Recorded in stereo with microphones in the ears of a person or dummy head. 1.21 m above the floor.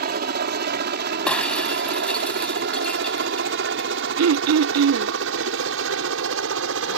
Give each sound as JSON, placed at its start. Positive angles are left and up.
{"t": 0.0, "sound": "a helicopter", "side_deg": -45}
{"t": 1.3, "sound": "breaking glass", "side_deg": 5}
{"t": 4.2, "sound": "throat clearing", "side_deg": -70}